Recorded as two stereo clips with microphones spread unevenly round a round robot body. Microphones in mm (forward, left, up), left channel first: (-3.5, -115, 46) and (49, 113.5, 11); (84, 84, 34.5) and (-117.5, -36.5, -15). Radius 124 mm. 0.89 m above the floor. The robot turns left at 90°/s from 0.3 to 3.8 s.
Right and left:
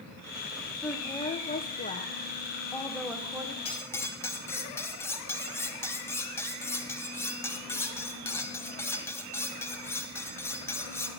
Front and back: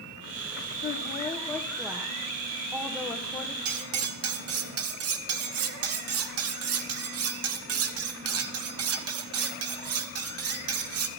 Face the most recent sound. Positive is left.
turn(degrees=175)